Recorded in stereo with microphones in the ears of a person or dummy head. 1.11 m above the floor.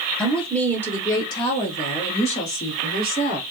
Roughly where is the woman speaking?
Centre.